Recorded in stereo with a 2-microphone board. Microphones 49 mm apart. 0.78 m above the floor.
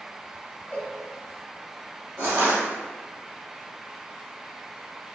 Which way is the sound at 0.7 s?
30° left (ahead or behind).